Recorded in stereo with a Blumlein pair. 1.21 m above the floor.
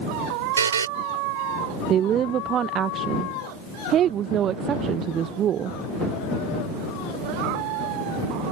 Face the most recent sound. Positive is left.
turn(degrees=-30)